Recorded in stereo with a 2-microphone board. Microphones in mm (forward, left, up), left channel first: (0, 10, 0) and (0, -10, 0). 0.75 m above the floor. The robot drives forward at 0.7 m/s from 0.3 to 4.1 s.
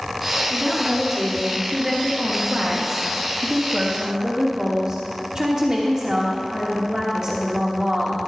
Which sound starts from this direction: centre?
A woman speaking, at 0.5 s.